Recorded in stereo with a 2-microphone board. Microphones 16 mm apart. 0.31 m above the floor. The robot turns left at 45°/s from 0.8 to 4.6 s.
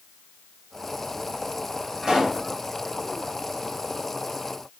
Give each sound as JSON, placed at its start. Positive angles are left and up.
{"t": 2.0, "sound": "a pop", "side_deg": -35, "distance_m": 2.0}